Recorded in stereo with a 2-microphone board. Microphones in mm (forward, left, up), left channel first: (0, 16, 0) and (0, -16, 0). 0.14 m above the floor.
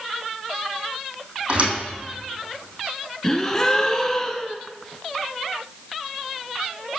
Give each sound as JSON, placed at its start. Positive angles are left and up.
{"t": 1.5, "sound": "a thud", "side_deg": -40, "distance_m": 3.0}
{"t": 3.2, "sound": "a gasp", "side_deg": 20, "distance_m": 0.7}